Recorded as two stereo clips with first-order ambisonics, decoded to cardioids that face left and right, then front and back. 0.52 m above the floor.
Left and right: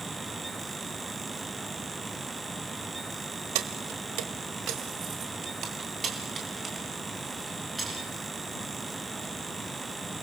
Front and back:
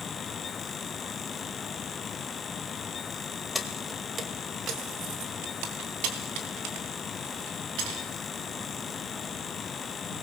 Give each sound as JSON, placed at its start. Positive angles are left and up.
{"t": 3.5, "sound": "keys jangling", "azimuth_deg": -80, "distance_m": 1.5}